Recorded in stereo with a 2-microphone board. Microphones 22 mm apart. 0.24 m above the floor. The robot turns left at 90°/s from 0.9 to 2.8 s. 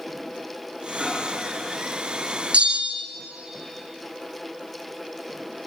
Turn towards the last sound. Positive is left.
turn(degrees=-85)